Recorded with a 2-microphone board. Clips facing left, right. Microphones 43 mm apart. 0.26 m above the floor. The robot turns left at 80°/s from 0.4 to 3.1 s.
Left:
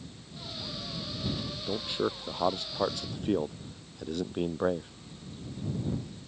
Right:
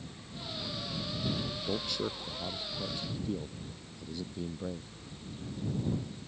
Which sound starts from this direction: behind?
A man speaking, at 1.7 s.